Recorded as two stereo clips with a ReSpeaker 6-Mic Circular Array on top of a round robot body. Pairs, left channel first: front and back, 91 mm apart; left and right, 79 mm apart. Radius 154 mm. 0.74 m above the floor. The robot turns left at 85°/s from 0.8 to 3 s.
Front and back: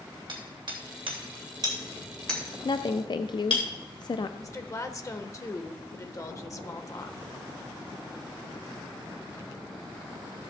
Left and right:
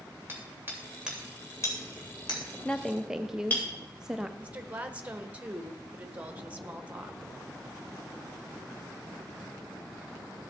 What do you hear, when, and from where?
0.3 s hammering: 150° right, 3 m; by 3.6 s 25° left, 3 m
2.6 s a woman speaking: 20° left, 0.5 m; by 4.3 s 10° right, 0.5 m
4.4 s a woman speaking: 30° right, 1.3 m